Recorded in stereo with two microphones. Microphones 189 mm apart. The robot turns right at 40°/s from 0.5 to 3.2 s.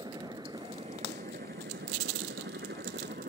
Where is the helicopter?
20° right (ahead or behind); by 3.3 s 55° right (ahead or behind).